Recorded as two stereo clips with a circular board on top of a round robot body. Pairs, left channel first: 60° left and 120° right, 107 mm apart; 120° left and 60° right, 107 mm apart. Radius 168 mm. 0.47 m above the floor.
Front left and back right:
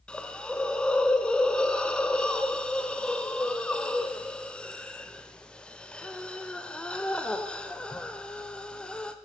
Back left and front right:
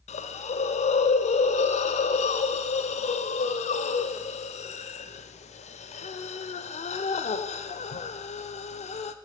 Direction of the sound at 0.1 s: 140° left.